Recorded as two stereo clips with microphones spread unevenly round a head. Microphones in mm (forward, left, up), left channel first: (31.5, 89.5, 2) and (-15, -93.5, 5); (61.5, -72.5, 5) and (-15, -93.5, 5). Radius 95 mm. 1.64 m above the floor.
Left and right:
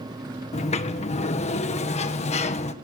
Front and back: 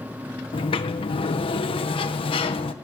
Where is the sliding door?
20° left, 1.3 m.